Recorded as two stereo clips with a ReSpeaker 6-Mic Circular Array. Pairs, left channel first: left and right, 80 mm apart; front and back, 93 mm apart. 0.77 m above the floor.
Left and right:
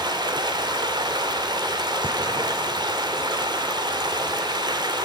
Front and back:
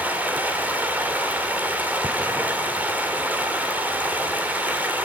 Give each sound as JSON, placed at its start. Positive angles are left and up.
{"t": 0.0, "sound": "running water", "azimuth_deg": -110, "distance_m": 2.5}